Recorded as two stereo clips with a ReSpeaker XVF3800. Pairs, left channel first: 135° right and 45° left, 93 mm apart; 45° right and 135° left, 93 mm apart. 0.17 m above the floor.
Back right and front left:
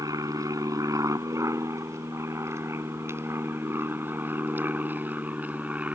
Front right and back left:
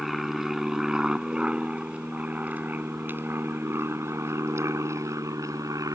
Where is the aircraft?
50° left; by 6.0 s 110° left.